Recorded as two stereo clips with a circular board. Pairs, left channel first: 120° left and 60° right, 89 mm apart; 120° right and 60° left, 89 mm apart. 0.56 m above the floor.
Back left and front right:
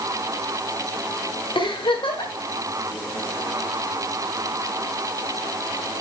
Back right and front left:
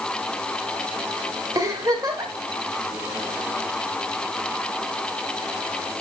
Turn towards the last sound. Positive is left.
turn(degrees=105)